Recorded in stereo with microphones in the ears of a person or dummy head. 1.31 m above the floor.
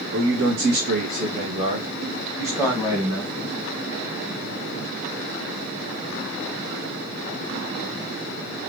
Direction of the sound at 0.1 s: 60° right (ahead or behind).